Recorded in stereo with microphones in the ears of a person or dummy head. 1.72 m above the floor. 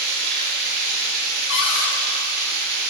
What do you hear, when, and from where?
0.0 s running water: 65° right (ahead or behind), 1.1 m
1.5 s a cupboard door: 70° left (ahead or behind), 0.8 m